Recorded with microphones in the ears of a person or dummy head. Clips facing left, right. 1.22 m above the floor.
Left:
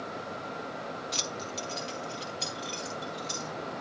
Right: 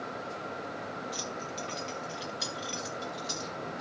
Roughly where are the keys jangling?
Left.